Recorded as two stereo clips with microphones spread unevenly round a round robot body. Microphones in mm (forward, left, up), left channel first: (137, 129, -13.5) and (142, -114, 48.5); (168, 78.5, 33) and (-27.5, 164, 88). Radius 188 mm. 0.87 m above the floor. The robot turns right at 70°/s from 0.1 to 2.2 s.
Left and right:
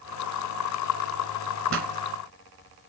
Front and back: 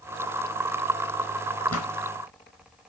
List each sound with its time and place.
1.7 s a pop: 80° right, 1.6 m; by 1.9 s 70° right, 1.6 m